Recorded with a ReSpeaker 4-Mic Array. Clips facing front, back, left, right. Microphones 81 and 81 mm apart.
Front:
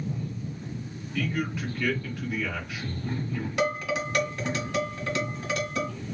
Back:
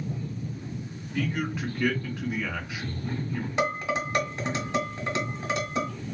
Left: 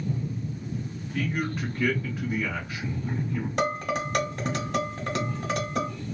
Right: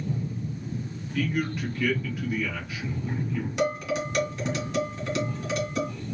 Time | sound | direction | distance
1.1 | a man speaking | 120° left | 1.6 m
3.6 | dishes clattering | 115° left | 1.4 m